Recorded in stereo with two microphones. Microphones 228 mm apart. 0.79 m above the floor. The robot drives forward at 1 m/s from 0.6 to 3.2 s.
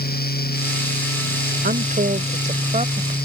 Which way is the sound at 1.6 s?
45° right (ahead or behind).